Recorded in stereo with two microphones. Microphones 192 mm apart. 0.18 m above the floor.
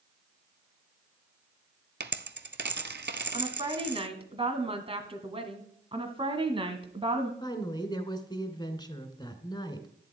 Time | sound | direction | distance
2.0 | a dropped coin | 65° right (ahead or behind) | 0.7 m
3.3 | a woman speaking | 30° right (ahead or behind) | 1.8 m
5.9 | a woman speaking | 30° right (ahead or behind) | 1.3 m
7.4 | a woman speaking | 20° left (ahead or behind) | 2 m